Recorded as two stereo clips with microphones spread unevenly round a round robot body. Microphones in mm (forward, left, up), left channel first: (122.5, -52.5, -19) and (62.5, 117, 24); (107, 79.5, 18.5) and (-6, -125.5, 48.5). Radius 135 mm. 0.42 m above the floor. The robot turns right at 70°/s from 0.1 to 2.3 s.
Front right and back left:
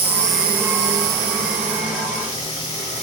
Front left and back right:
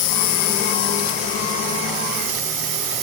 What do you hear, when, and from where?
0.0 s an insect: 55° left; by 3.0 s 150° right